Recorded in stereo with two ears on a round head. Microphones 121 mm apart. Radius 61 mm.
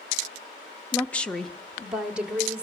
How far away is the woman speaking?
About 0.7 m.